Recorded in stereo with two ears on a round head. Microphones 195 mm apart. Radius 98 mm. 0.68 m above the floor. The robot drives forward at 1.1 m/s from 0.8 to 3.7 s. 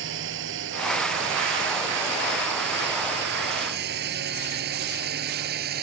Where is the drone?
65° right (ahead or behind); by 5.8 s 50° right (ahead or behind).